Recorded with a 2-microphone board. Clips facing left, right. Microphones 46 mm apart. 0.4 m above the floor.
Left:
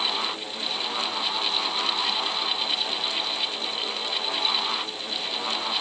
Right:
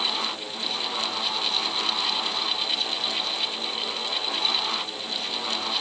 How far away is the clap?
No clap in this recording.